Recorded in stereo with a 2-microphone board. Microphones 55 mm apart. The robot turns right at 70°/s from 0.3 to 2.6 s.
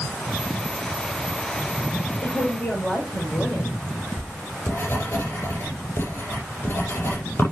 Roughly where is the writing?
Left.